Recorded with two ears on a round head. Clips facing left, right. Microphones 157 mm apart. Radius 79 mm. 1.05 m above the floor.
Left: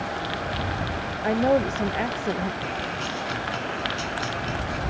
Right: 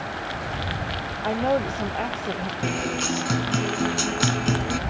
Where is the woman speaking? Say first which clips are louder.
Left 2 dB; 15° left (ahead or behind).